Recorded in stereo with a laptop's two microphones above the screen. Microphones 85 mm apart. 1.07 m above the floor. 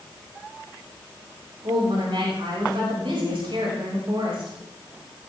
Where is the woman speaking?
85° right, 6 m.